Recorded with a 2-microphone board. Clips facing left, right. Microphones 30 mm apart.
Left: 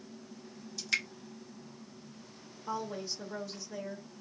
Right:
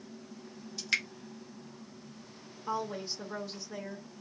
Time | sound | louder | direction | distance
0.8 | dripping | right 1 dB | 20° right (ahead or behind) | 1.5 m
2.7 | a woman speaking | right 2 dB | 25° right (ahead or behind) | 1.2 m